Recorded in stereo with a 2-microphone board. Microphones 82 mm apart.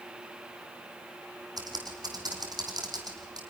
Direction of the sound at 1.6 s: 60° right (ahead or behind).